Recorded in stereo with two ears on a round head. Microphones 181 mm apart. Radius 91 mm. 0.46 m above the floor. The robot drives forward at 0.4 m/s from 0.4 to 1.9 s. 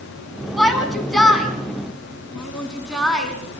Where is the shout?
Centre (ahead or behind), 4.5 m.